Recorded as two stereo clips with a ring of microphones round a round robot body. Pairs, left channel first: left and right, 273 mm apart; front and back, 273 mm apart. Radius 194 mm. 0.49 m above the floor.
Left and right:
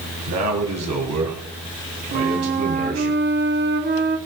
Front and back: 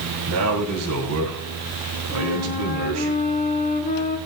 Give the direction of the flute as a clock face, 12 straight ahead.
2 o'clock.